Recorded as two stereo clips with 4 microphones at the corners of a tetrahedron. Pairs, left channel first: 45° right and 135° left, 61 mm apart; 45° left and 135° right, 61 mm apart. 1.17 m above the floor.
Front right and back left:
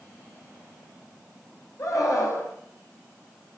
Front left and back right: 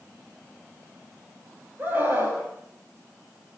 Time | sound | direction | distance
1.8 | a scream | 75° right | 8 m